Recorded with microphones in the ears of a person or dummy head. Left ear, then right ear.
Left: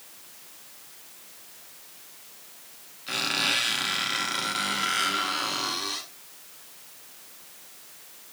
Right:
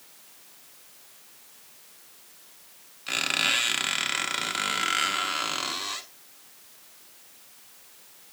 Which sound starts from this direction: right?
A squeak, at 3.1 s.